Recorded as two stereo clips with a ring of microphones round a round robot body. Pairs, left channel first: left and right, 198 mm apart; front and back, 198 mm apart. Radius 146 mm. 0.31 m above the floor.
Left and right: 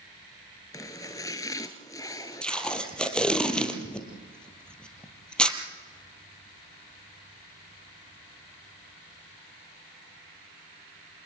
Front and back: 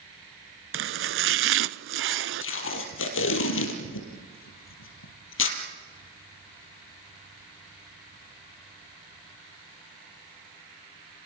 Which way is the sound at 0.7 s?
170° left.